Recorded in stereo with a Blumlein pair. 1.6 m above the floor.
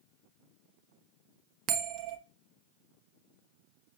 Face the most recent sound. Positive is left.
turn(degrees=-40)